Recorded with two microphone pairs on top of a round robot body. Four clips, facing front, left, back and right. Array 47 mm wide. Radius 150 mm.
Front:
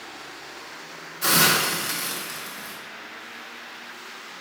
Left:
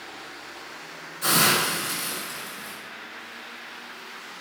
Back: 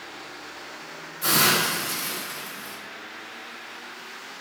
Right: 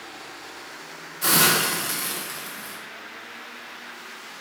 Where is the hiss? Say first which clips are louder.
Right 1 dB, front 1 dB; 45° right, 1.4 m.